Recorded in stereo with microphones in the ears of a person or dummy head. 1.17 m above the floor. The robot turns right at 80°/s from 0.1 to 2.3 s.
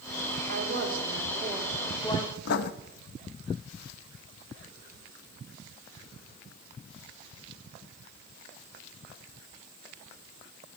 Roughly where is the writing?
Left.